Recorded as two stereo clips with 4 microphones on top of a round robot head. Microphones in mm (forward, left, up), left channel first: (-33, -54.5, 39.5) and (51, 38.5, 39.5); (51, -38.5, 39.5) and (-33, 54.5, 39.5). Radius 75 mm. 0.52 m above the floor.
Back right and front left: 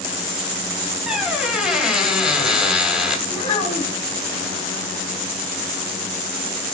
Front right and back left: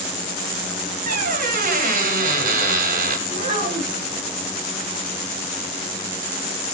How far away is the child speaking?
About 2.5 m.